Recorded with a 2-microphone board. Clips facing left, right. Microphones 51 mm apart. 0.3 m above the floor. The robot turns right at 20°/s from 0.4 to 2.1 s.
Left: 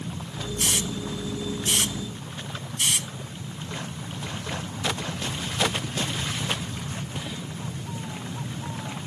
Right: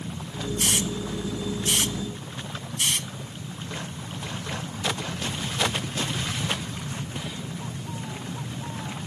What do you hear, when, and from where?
0.6 s a hiss: 20° right (ahead or behind); by 3.1 s 10° left (ahead or behind)